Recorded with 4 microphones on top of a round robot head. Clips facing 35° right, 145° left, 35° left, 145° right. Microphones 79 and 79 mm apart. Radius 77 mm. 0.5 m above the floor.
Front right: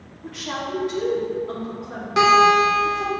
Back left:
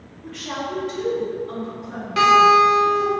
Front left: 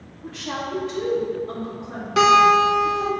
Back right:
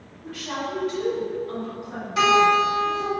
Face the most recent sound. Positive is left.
turn(degrees=35)